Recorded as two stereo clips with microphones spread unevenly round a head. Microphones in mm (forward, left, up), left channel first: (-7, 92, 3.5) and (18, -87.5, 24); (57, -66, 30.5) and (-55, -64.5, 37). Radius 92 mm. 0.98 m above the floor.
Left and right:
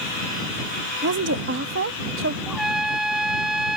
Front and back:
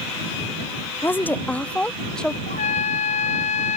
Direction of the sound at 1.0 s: 65° right.